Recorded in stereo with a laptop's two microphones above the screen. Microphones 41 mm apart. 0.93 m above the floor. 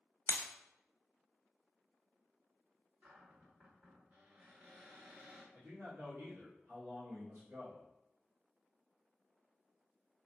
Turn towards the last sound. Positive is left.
turn(degrees=-75)  # may be behind; listen again after turning